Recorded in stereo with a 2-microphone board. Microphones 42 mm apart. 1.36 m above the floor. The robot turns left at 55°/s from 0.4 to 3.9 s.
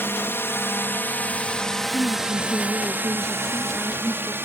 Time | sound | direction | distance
0.0 | a drone | 60° left (ahead or behind) | ?
1.9 | a woman speaking | 95° right | ?